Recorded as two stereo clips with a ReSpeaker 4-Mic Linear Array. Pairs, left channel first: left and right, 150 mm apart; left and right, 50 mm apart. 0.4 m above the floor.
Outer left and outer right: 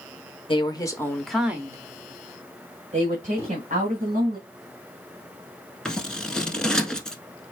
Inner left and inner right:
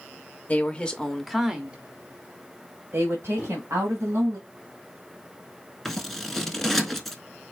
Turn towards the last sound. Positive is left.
turn(degrees=5)  # may be behind; listen again after turning